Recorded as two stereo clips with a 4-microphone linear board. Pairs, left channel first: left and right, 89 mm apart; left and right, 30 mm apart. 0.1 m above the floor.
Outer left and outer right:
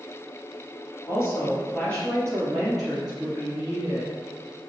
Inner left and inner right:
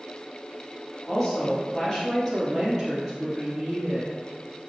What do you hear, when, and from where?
1.1 s a woman speaking: 30° left (ahead or behind), 1.6 m; by 4.1 s 20° right (ahead or behind), 2.0 m